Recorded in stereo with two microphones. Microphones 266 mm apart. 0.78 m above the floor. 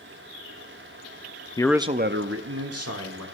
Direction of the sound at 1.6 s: 20° left (ahead or behind).